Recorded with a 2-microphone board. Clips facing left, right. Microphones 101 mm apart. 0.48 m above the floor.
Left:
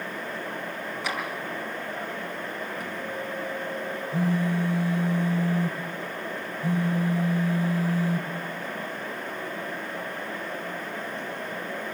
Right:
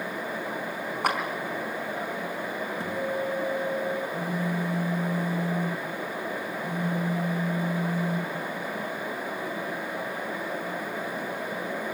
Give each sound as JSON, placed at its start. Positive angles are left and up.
{"t": 1.0, "sound": "a clap", "side_deg": -55, "distance_m": 4.5}
{"t": 2.8, "sound": "a guitar", "side_deg": -30, "distance_m": 3.5}
{"t": 4.1, "sound": "a phone buzzing", "side_deg": 85, "distance_m": 3.5}